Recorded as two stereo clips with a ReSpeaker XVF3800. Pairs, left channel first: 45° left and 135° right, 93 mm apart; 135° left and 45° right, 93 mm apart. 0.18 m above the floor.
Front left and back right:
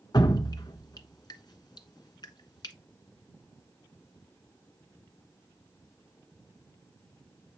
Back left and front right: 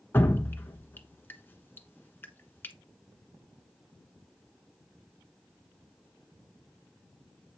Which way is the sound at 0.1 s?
75° left.